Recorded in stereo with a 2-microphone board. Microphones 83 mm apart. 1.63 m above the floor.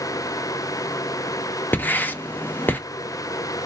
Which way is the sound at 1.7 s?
20° left (ahead or behind).